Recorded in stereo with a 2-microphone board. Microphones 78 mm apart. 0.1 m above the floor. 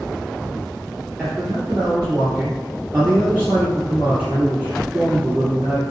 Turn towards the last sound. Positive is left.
turn(degrees=-25)  # may be behind; listen again after turning